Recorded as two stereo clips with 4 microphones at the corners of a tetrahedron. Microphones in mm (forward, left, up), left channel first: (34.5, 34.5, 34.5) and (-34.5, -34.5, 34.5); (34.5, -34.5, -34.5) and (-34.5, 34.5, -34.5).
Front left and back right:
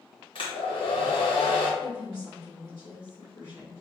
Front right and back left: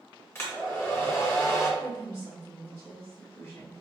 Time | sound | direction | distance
0.3 | a hair dryer | 20° left | 0.8 m
1.8 | a woman speaking | 10° left | 1.6 m